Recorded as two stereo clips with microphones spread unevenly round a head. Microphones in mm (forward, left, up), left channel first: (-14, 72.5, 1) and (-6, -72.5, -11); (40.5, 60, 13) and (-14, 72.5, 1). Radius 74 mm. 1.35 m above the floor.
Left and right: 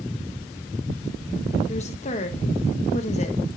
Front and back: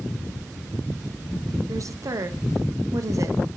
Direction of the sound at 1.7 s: 140° left.